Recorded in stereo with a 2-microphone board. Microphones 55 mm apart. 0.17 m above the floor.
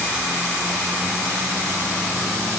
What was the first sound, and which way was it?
Only background noise.